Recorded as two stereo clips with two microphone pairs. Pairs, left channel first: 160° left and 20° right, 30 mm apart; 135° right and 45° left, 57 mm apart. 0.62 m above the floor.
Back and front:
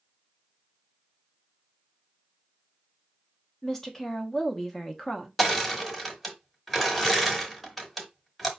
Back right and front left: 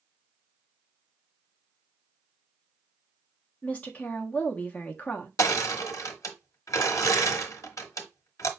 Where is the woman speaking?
145° right, 0.9 m.